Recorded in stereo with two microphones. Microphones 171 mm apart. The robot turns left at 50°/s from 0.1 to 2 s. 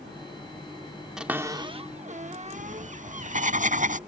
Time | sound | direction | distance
1.2 | a cupboard door | 5° right (ahead or behind) | ?
2.5 | writing | 50° right (ahead or behind) | ?